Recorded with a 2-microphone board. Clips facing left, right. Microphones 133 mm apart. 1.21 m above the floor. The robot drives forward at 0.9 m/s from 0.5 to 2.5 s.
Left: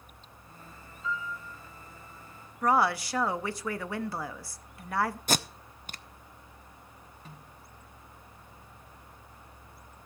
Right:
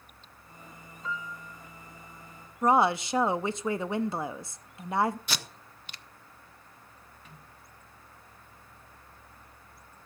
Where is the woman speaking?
20° right (ahead or behind), 0.6 m.